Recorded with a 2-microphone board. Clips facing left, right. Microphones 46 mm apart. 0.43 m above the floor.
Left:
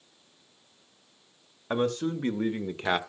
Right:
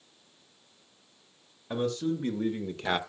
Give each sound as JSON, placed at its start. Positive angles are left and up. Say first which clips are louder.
{"t": 1.7, "sound": "a man speaking", "louder": "left 2 dB", "side_deg": 55, "distance_m": 1.5}